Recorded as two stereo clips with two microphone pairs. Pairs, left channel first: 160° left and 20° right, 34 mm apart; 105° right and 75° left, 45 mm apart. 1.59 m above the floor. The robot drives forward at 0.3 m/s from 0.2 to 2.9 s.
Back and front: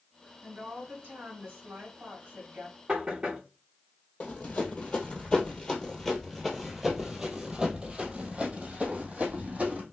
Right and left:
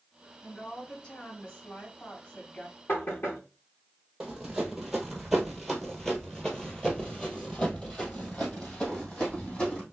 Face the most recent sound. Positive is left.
turn(degrees=-55)